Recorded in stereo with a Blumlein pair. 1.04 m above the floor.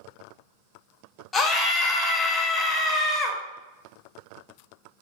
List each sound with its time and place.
1.3 s a scream: 20° left, 0.7 m